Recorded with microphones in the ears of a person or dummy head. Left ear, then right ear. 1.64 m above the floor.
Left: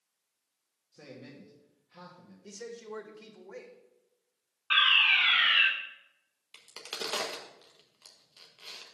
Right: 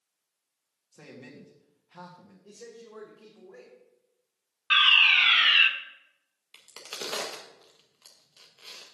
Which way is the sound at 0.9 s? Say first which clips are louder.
Right 1 dB; 35° right (ahead or behind).